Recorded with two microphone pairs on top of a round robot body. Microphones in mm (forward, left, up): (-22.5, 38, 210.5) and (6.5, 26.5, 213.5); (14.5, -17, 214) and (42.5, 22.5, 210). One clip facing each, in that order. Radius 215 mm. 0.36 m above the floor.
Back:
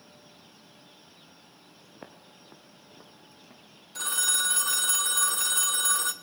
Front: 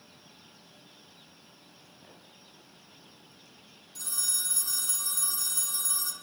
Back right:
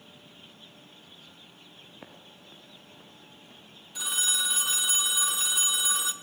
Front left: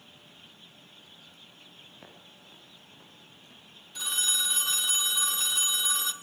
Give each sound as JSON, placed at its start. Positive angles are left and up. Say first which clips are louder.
{"t": 1.9, "sound": "footsteps", "louder": "back 9 dB, back right 2 dB", "azimuth_deg": 165, "distance_m": 3.5}
{"t": 4.0, "sound": "a phone ringing", "louder": "back 9 dB, back right 1 dB", "azimuth_deg": 150, "distance_m": 1.6}